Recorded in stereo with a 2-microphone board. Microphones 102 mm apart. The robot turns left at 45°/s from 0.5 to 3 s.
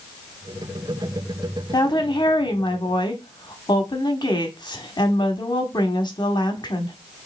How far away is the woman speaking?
About 1.1 m.